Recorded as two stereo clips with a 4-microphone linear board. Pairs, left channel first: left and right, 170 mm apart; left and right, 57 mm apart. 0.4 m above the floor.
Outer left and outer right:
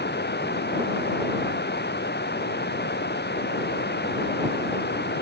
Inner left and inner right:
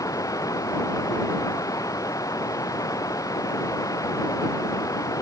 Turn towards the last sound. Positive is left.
turn(degrees=85)